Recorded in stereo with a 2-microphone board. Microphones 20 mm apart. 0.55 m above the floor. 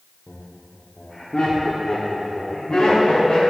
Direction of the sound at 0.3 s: 5° left (ahead or behind).